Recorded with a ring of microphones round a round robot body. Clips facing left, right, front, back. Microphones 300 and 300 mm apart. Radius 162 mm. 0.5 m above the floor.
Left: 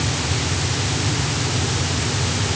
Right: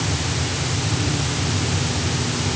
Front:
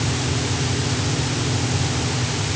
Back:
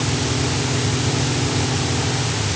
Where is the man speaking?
No man speaking in this recording.